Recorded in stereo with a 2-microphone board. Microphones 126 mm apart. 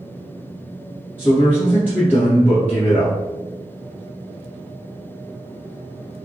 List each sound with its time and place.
1.2 s a man speaking: 15° left (ahead or behind), 1.5 m